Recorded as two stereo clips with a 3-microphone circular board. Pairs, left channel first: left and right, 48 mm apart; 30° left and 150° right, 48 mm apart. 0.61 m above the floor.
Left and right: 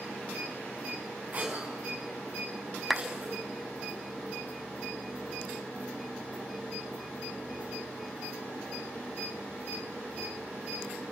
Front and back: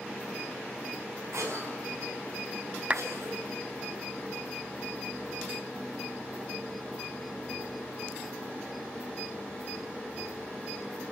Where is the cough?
140° right, 6 m.